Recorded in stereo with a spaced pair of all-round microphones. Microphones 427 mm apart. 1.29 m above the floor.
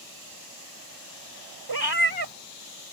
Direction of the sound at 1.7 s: 60° right (ahead or behind).